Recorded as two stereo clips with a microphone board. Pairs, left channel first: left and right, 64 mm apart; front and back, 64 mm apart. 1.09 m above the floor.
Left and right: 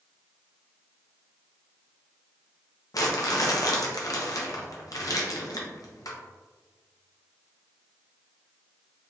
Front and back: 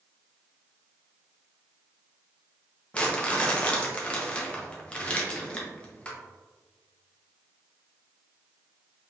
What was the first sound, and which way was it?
Crumpling, 70° left.